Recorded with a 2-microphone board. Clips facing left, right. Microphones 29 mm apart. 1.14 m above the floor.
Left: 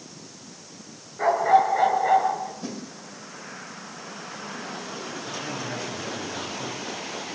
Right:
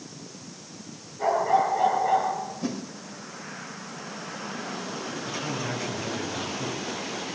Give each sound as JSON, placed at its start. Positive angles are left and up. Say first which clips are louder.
{"t": 1.2, "sound": "a dog barking", "louder": "left 3 dB", "side_deg": 50, "distance_m": 7.0}
{"t": 2.6, "sound": "a whoosh", "louder": "right 4 dB", "side_deg": -5, "distance_m": 3.5}
{"t": 5.3, "sound": "a man speaking", "louder": "right 1 dB", "side_deg": 0, "distance_m": 9.5}